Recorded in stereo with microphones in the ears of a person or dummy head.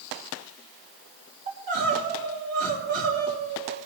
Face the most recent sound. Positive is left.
turn(degrees=-50)  # may be behind; listen again after turning